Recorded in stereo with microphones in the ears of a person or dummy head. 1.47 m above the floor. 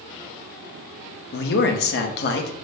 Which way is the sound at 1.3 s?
50° left (ahead or behind).